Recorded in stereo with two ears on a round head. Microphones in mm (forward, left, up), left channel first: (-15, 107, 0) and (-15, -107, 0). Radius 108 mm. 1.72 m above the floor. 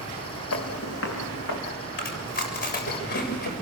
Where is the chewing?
40° left (ahead or behind), 7.5 m.